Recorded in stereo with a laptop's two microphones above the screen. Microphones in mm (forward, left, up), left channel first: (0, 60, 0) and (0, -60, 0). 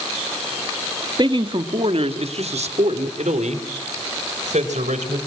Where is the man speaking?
40° right (ahead or behind), 1.7 m; by 5.2 s 80° right, 5 m.